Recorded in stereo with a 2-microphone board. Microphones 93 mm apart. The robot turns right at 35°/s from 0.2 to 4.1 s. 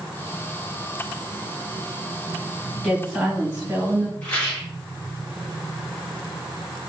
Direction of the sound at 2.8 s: 170° left.